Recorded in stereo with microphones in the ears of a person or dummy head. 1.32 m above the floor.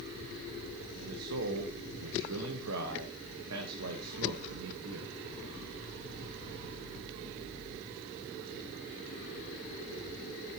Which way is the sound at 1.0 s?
75° right (ahead or behind).